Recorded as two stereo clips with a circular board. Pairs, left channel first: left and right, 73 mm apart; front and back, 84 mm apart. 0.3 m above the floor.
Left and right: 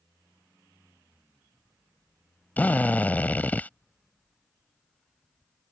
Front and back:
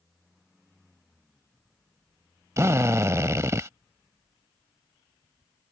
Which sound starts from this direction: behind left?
A drill, at 2.6 s.